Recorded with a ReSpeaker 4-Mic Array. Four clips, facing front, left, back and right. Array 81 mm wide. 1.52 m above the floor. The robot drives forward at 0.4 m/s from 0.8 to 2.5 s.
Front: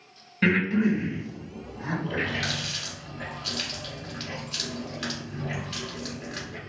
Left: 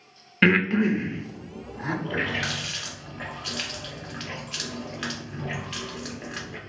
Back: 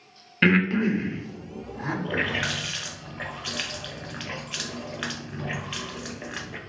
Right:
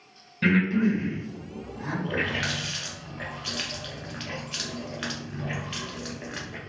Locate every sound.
0.4 s breathing: 120° left, 0.7 m; by 1.9 s 145° left, 1.0 m
2.0 s a running tap: straight behind, 0.7 m